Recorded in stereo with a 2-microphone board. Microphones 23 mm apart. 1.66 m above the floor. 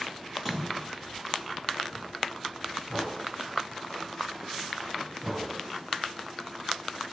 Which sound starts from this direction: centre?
A splash, at 0.3 s.